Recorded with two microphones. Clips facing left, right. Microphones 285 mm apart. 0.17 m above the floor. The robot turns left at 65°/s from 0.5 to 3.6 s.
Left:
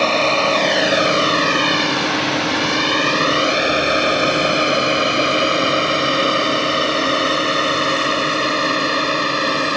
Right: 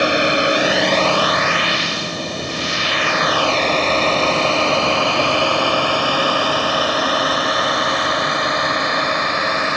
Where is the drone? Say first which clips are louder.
Right 1 dB; 15° right (ahead or behind); by 9.8 s 40° left (ahead or behind).